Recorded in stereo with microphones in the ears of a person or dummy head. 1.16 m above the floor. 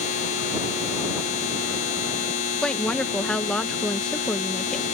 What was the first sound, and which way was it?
A machine running, 40° left (ahead or behind).